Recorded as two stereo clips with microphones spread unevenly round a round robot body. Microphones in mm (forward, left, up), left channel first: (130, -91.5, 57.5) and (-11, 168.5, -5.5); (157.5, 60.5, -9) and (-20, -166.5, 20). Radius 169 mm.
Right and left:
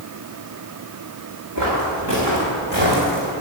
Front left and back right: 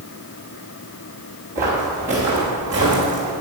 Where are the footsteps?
170° left, 3.5 m; by 3.3 s 175° right, 3 m.